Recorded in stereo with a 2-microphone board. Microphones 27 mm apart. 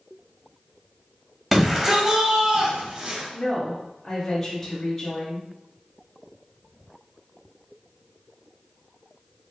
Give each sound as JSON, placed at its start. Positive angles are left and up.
{"t": 1.5, "sound": "a shout", "side_deg": -5, "distance_m": 1.0}
{"t": 3.3, "sound": "a woman speaking", "side_deg": 10, "distance_m": 1.2}